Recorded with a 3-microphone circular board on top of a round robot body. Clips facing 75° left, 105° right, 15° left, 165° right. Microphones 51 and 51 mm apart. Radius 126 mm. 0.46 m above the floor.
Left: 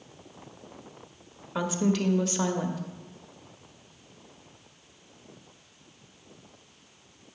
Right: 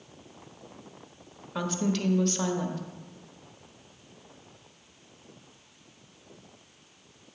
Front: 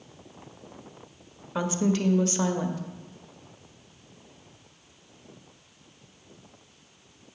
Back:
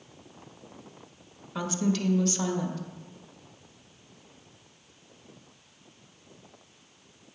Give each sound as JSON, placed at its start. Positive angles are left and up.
{"t": 1.6, "sound": "a woman speaking", "azimuth_deg": 10, "distance_m": 1.0}